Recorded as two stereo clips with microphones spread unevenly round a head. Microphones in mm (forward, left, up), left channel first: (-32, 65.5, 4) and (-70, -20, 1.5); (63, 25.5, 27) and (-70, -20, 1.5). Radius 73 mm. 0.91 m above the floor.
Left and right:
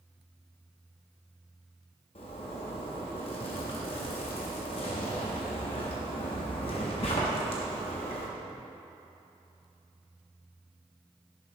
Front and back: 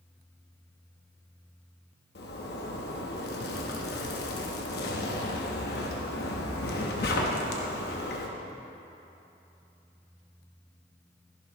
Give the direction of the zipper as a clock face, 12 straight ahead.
11 o'clock.